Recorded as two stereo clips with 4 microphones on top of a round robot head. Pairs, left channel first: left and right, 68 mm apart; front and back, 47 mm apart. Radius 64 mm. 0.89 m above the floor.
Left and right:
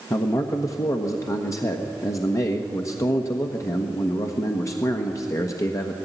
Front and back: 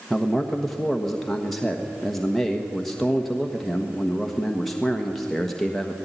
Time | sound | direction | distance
0.1 | a man speaking | 85° left | 1.3 m